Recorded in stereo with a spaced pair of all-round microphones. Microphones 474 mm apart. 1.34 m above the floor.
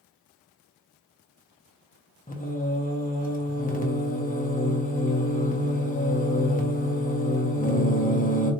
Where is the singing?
15° left (ahead or behind), 0.9 m.